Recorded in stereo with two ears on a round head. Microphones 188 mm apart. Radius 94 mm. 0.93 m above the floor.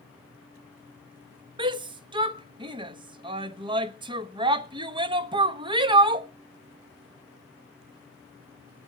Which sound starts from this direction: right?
A shout, at 1.6 s.